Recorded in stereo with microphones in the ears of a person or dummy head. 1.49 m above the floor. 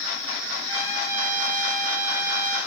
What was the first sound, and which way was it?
A trumpet, 15° right (ahead or behind).